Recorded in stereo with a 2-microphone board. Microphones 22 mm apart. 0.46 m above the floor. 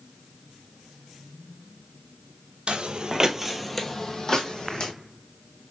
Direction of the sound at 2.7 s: 60° right (ahead or behind).